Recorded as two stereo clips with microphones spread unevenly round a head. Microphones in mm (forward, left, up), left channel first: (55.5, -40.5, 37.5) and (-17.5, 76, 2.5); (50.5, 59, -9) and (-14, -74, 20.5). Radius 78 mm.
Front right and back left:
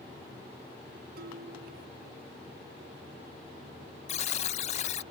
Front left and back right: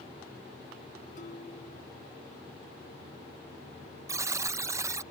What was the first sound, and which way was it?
Dishes clattering, 110° left.